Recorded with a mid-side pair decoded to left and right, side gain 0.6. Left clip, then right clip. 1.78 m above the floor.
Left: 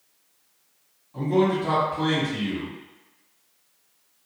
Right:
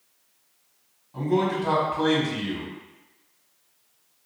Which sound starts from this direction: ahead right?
A man speaking, at 1.1 s.